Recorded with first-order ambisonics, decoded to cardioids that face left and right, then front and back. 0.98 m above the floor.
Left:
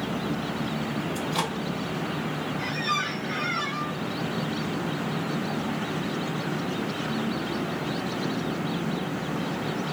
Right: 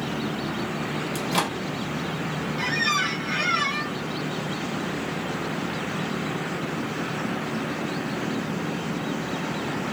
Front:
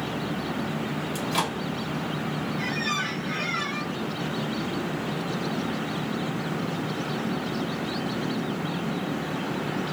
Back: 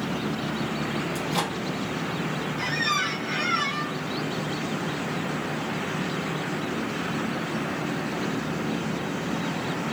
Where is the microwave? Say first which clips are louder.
Right 4 dB, front 3 dB; 75° right, 0.8 m.